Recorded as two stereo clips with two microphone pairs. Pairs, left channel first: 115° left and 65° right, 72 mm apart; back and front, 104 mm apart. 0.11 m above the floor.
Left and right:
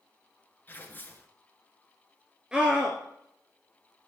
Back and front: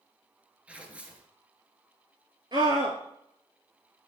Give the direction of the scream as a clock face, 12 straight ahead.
12 o'clock.